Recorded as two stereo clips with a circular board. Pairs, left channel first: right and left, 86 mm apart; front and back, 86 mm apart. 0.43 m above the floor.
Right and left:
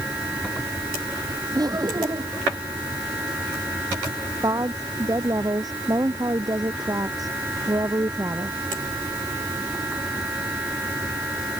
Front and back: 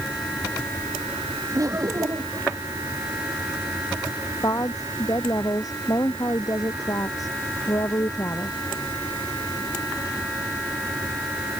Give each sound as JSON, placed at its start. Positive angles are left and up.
{"t": 1.6, "sound": "laughter", "azimuth_deg": 130}
{"t": 4.4, "sound": "a woman speaking", "azimuth_deg": 45}